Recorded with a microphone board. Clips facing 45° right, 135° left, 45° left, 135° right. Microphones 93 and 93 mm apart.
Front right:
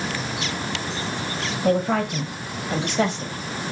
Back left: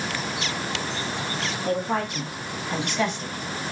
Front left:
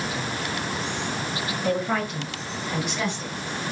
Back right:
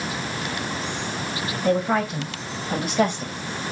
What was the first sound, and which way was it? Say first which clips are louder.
A woman speaking: front right 5 dB, back right 4 dB; 50° right.